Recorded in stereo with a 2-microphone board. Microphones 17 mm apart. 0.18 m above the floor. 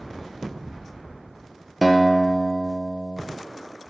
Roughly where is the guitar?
Centre.